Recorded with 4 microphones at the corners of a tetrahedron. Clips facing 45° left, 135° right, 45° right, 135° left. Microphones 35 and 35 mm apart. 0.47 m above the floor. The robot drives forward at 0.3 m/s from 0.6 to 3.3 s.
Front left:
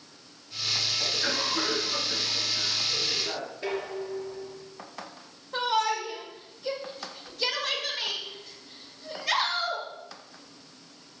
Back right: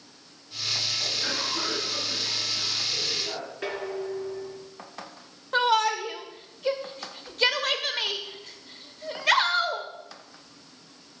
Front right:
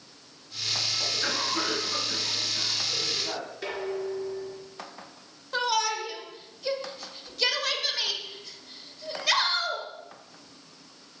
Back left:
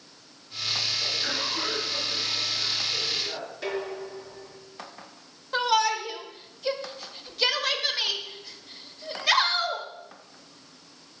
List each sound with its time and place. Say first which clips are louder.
1.0 s a cough: front left 1 dB, even; 35° right, 4 m; by 3.5 s 40° right, 3.5 m
3.6 s dishes clattering: back right 1 dB, even; 135° right, 4.5 m
5.5 s a shout: back right 4 dB, back left 3 dB; 150° right, 1.6 m